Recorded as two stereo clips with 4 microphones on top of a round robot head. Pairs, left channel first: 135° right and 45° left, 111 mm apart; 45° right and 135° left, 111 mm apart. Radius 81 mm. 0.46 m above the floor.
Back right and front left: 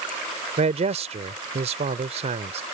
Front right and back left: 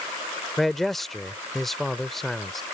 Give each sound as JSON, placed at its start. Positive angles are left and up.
{"t": 0.6, "sound": "a man speaking", "azimuth_deg": 40}